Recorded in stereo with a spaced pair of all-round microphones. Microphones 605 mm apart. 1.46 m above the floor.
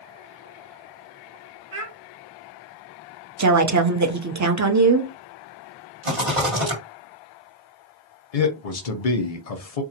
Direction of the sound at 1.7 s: 25° right (ahead or behind).